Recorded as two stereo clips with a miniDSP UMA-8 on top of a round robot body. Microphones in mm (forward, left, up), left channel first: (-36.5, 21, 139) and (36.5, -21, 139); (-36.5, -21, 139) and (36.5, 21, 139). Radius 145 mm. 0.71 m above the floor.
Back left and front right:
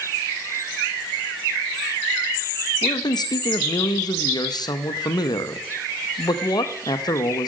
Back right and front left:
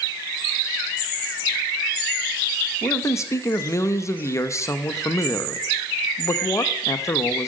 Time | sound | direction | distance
2.8 | a man speaking | 165° left | 1.0 m